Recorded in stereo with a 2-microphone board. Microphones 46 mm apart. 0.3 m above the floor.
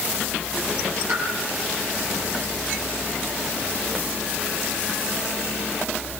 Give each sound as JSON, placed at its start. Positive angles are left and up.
{"t": 1.1, "sound": "a pop", "side_deg": -65, "distance_m": 5.5}